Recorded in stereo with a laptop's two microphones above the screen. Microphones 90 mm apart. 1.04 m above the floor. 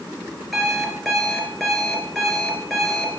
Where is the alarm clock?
5° left (ahead or behind), 2.5 m.